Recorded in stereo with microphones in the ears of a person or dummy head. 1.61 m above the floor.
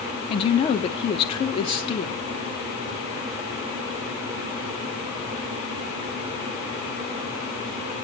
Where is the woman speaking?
30° left (ahead or behind), 1.1 m.